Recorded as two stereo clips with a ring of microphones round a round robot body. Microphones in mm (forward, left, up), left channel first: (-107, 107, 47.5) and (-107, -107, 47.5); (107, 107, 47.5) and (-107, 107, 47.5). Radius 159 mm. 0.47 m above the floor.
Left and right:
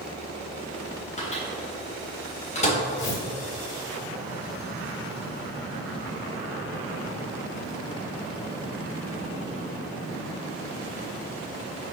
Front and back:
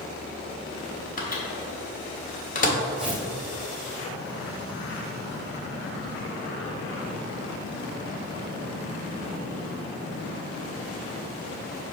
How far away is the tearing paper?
About 2 m.